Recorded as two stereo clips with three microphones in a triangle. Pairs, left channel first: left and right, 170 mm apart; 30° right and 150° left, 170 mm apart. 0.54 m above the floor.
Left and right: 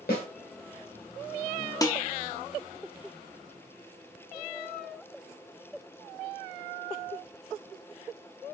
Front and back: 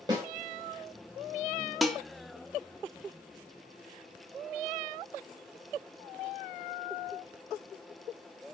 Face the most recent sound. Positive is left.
turn(degrees=60)